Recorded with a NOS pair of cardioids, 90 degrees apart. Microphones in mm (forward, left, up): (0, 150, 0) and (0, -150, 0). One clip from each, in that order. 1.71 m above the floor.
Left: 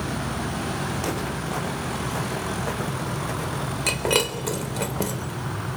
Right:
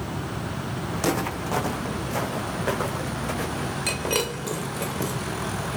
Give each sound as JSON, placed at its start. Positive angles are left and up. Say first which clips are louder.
{"t": 0.9, "sound": "footsteps", "louder": "right 2 dB", "azimuth_deg": -45, "distance_m": 5.5}
{"t": 3.9, "sound": "breaking glass", "louder": "left 4 dB", "azimuth_deg": 20, "distance_m": 4.0}